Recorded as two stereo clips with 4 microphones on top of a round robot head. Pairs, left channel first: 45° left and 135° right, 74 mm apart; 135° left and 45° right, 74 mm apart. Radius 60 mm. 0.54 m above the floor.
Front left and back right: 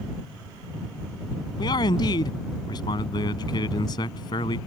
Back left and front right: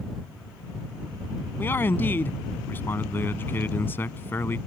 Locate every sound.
1.6 s a man speaking: 75° left